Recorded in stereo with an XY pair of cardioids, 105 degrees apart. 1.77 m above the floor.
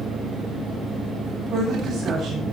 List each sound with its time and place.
1.5 s a woman speaking: 45° right, 10 m